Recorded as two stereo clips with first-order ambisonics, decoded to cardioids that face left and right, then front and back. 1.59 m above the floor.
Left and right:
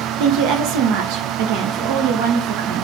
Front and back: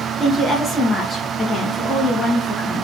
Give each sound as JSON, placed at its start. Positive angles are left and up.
{"t": 0.2, "sound": "a woman speaking", "azimuth_deg": -90, "distance_m": 1.7}